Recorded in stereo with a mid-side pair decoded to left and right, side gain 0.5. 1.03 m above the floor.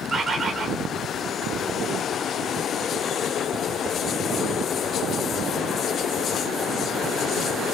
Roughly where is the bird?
Ahead right.